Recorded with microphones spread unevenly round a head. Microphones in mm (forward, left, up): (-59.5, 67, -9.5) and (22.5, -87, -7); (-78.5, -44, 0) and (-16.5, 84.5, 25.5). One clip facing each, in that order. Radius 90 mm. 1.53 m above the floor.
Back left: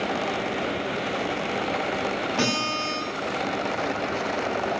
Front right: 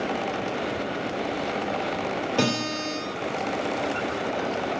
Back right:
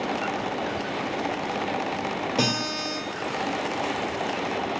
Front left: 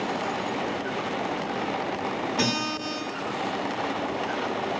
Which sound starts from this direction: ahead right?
A guitar, at 2.4 s.